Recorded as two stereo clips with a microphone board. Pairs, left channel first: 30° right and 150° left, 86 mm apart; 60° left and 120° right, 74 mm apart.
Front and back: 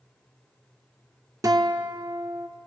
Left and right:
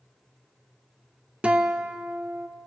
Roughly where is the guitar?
Behind.